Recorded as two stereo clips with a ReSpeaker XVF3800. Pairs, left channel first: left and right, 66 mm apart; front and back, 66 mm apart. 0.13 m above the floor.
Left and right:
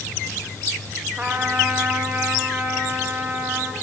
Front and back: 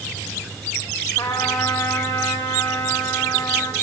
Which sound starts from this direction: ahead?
A trumpet, at 1.2 s.